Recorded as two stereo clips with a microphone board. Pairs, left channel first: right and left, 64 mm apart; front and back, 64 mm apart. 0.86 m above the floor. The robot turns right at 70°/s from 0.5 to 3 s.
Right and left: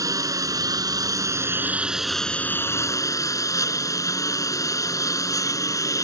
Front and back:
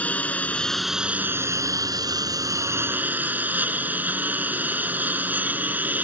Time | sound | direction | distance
0.0 | a lawn mower | 65° left | ?